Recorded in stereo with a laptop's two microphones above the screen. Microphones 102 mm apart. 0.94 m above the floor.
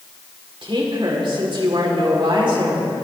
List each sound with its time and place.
0.6 s a woman speaking: 55° right (ahead or behind), 3.5 m